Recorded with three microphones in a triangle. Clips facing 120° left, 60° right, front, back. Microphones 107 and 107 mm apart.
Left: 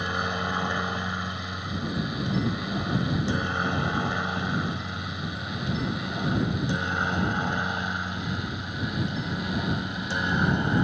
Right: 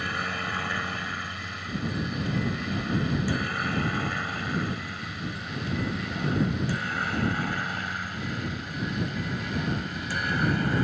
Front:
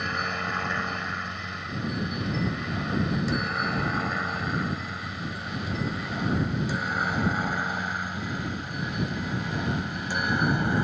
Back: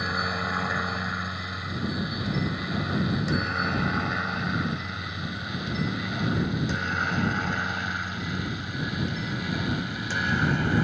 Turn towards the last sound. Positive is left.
turn(degrees=65)